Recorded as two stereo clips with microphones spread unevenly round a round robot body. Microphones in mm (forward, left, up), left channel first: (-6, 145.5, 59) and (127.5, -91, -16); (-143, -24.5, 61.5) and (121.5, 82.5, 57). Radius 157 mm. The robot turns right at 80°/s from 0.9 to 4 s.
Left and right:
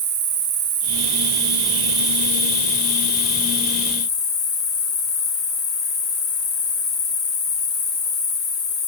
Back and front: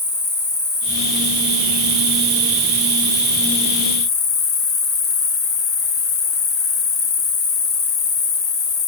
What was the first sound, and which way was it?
An insect, 80° right.